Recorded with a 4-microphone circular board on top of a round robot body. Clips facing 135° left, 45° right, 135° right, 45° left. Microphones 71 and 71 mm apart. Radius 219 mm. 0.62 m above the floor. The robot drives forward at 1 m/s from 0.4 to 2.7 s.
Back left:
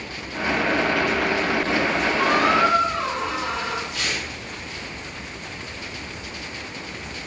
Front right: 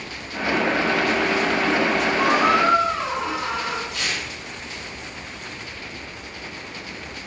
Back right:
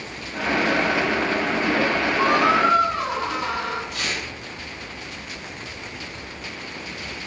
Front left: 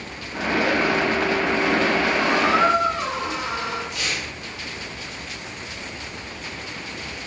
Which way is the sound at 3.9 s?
160° right.